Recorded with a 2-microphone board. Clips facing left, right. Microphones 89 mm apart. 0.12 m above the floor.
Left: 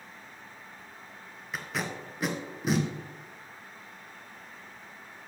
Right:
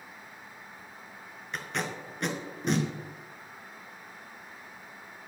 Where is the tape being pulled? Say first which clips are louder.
Even; 5° left (ahead or behind), 1.2 m.